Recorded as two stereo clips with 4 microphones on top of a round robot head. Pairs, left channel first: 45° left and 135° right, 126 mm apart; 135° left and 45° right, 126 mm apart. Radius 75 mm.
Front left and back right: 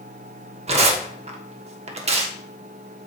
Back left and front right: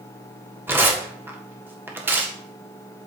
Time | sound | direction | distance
0.7 | tearing paper | 115° right | 1.6 m